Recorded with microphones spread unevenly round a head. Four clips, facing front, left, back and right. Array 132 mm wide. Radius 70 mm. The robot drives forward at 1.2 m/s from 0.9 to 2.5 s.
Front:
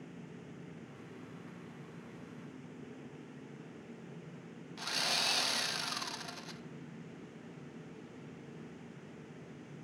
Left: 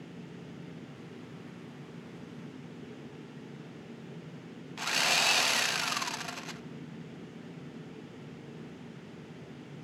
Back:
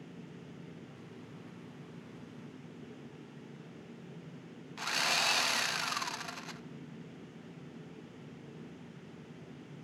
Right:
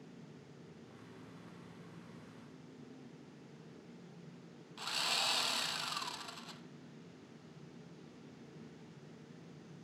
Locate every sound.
4.8 s sawing: 75° left, 0.9 m